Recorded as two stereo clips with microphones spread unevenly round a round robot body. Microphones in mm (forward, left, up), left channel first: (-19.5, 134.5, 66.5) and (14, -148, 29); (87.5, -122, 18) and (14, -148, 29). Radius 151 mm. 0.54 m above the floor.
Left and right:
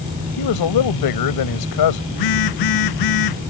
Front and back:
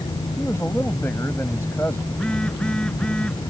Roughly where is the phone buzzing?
Left.